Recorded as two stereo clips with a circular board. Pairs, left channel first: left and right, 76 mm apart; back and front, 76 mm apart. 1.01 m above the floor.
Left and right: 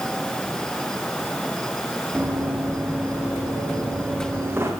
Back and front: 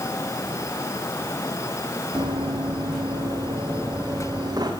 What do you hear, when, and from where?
2.1 s running footsteps: 20° right, 7.5 m; by 4.7 s 30° right, 9 m